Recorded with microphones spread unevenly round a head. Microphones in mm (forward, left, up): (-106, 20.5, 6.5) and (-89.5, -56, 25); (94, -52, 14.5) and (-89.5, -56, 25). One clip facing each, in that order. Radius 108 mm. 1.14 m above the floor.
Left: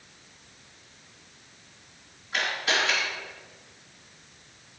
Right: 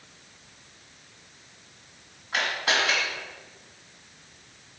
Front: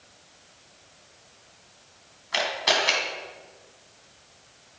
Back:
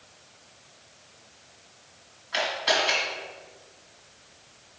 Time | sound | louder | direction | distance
2.3 | a camera shutter | right 1 dB, even | 25° right | 2.5 m